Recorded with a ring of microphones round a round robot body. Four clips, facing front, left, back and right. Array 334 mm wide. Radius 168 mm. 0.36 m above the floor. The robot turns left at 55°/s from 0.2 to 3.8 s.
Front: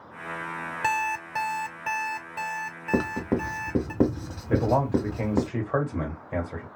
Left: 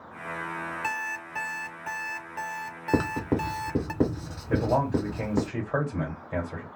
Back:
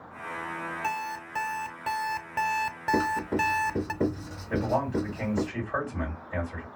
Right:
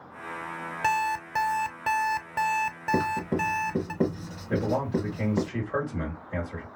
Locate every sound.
0.8 s an alarm clock: 40° right, 0.6 m; by 3.9 s 155° left, 0.6 m
2.9 s writing: 55° left, 1.2 m; by 5.5 s 10° left, 1.2 m
4.5 s a man speaking: 10° left, 1.8 m